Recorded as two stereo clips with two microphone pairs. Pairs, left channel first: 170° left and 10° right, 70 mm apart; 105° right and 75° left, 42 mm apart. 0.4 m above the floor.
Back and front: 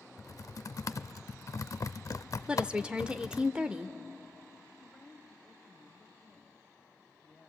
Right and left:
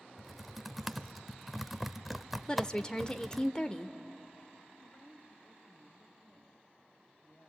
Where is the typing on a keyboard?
165° left, 0.5 m.